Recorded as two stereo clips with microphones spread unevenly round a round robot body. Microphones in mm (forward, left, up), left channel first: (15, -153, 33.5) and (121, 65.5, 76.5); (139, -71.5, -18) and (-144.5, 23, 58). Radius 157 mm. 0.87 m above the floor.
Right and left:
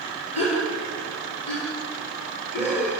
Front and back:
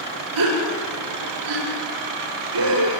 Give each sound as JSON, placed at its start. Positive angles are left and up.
{"t": 0.3, "sound": "a gasp", "azimuth_deg": 175, "distance_m": 8.0}